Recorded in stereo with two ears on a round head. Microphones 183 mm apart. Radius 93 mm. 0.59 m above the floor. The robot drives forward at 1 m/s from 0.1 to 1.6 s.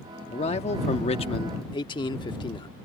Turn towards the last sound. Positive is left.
turn(degrees=25)  # may be behind; listen again after turning